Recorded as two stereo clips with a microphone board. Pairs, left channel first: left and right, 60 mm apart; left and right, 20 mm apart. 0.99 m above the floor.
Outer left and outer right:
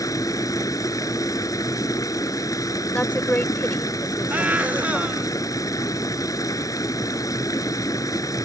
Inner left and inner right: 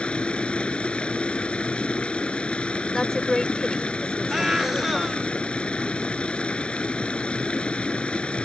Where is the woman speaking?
30° left (ahead or behind).